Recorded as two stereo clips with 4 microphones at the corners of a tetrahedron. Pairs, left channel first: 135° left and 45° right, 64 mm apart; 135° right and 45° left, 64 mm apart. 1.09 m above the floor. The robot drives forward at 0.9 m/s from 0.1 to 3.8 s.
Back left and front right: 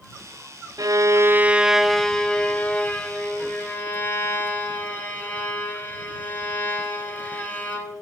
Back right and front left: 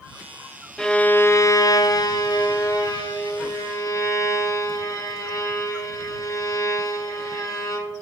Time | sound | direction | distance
0.8 | a violin | 55° right | 0.8 m